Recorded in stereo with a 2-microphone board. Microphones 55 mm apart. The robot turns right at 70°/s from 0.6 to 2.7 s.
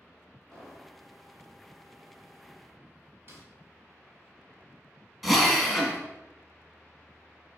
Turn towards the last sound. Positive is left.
turn(degrees=0)  # may be behind; listen again after turning